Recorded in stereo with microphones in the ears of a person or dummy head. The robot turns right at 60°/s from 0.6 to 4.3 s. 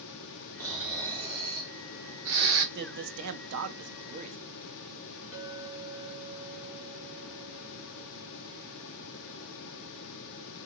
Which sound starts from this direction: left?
A clink, at 5.3 s.